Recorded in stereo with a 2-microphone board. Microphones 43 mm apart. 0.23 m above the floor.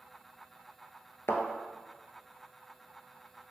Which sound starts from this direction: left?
A thud, at 1.3 s.